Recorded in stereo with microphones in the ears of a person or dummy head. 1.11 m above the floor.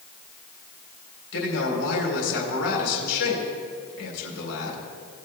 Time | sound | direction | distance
1.3 | a man speaking | 70° left (ahead or behind) | 3.5 m